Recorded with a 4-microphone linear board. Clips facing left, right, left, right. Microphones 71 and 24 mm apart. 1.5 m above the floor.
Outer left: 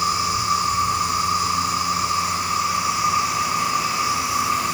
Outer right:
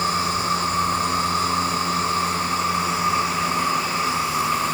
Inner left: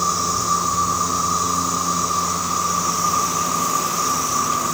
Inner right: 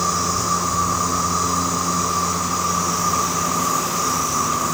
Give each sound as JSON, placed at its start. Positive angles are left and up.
{"t": 0.0, "sound": "an insect", "side_deg": 15, "distance_m": 9.0}